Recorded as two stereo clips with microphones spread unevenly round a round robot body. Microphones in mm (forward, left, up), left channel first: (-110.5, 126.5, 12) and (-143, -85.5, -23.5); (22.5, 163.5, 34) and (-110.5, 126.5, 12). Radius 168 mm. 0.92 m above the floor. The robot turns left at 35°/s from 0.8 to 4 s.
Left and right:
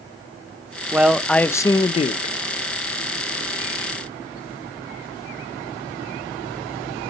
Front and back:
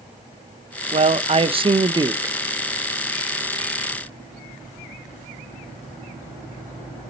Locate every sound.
0.9 s a man speaking: 175° right, 0.6 m; by 2.3 s 135° left, 0.6 m